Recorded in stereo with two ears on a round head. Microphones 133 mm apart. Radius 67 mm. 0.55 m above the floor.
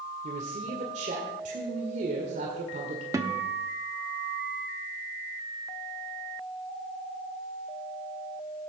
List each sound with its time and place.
0.2 s a man speaking: 50° right (ahead or behind), 1.7 m
3.1 s a guitar: 20° right (ahead or behind), 0.9 m